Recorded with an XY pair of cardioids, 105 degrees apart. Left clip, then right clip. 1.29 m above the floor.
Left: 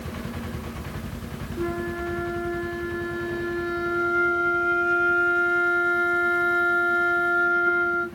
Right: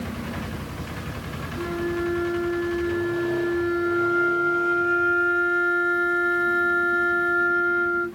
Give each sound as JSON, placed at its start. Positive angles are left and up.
{"t": 1.6, "sound": "a flute", "azimuth_deg": 20, "distance_m": 0.6}